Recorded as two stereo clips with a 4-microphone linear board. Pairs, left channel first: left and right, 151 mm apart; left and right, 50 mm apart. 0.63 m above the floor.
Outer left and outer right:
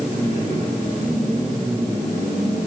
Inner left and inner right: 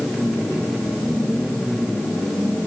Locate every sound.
Only background noise.